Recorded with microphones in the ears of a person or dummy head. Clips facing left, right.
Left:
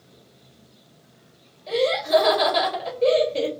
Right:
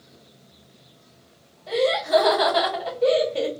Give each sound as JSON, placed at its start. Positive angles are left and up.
{"t": 1.7, "sound": "laughter", "side_deg": 25, "distance_m": 1.7}